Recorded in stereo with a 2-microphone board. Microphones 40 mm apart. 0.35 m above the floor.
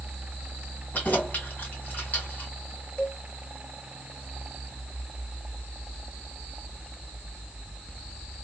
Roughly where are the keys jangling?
Left.